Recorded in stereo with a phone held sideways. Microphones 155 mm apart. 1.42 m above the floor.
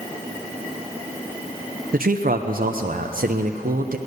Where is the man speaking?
65° right (ahead or behind), 0.8 m.